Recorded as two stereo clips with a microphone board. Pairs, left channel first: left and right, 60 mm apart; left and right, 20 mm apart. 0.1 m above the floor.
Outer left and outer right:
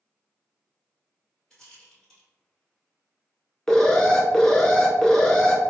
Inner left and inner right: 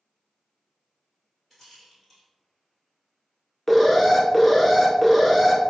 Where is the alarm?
10° left (ahead or behind), 0.8 m.